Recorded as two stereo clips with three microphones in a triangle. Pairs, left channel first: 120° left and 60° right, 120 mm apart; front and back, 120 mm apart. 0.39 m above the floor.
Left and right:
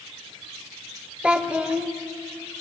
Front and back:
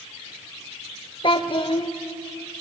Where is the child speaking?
20° left, 0.8 m.